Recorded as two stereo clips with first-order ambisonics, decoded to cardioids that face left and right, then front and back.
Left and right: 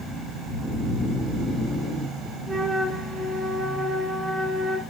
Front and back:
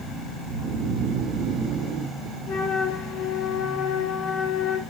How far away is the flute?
About 0.6 m.